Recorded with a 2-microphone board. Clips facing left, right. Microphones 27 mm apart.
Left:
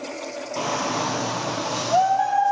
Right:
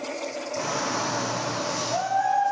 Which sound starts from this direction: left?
A shout, at 0.6 s.